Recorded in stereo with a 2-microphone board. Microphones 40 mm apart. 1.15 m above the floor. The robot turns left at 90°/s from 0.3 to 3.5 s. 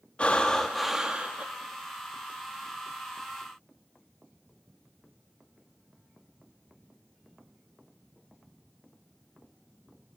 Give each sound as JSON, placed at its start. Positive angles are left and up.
{"t": 0.2, "sound": "breathing", "azimuth_deg": 40, "distance_m": 0.7}